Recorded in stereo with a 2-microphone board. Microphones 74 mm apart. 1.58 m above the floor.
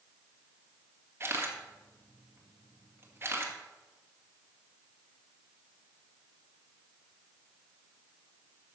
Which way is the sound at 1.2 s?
35° right (ahead or behind).